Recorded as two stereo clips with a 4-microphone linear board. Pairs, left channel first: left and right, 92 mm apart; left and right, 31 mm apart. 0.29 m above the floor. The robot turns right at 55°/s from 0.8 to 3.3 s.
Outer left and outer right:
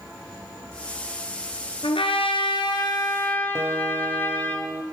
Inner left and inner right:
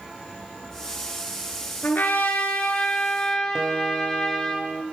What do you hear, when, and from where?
1.8 s a trumpet: 75° left, 2.5 m; by 4.5 s 160° left, 2.5 m
3.5 s a guitar: 25° right (ahead or behind), 1.0 m